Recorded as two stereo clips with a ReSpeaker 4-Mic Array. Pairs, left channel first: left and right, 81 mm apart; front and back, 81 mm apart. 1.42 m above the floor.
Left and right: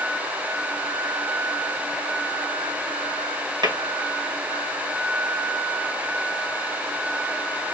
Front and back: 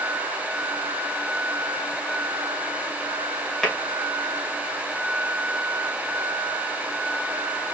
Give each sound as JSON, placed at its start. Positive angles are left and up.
{"t": 3.6, "sound": "tapping", "azimuth_deg": -85, "distance_m": 2.5}